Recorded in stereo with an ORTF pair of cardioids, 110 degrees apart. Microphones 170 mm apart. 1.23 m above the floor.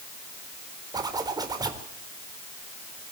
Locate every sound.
0.9 s a zipper: 20° right, 3.5 m